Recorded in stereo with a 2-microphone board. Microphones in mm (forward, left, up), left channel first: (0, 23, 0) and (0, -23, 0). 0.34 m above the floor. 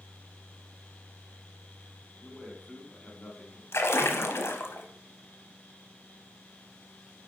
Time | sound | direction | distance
2.2 | a man speaking | 10° left (ahead or behind) | 3 m
3.7 | a splash | 65° left (ahead or behind) | 0.9 m